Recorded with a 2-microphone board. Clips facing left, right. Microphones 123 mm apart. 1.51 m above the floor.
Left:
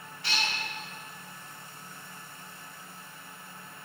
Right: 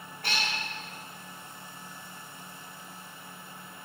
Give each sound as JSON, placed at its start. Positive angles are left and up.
{"t": 0.2, "sound": "a cat meowing", "side_deg": -50, "distance_m": 1.1}